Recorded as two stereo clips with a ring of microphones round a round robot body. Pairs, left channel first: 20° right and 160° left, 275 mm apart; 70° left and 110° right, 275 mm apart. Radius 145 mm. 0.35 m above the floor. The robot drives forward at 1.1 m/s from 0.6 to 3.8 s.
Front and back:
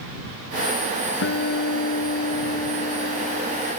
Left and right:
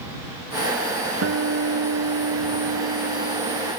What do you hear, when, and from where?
1.2 s a guitar: 70° right; by 3.7 s 95° right